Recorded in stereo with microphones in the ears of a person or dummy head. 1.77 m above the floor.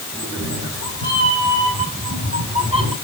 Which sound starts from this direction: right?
A cat meowing, at 0.1 s.